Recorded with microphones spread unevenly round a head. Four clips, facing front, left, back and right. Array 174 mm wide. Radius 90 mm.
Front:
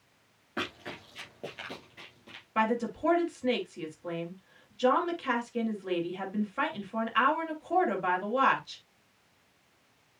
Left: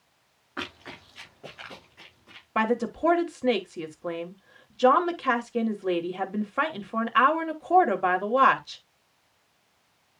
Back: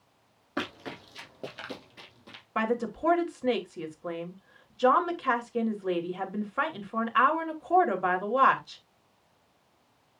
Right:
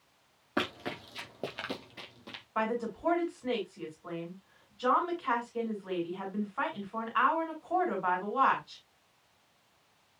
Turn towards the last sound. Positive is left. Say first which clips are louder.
# left 7 dB, even
turn(degrees=100)